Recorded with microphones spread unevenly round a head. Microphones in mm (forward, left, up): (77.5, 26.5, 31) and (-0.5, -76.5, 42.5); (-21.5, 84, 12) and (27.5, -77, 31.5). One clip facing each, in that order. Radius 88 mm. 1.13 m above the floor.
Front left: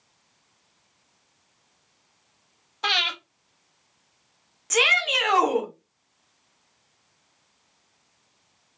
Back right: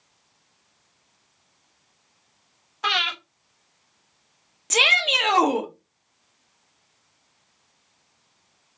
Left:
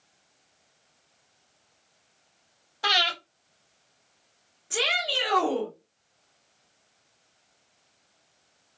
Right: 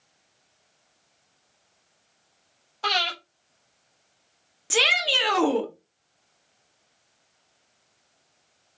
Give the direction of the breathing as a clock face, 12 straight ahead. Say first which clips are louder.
Back right 2 dB, even; 11 o'clock.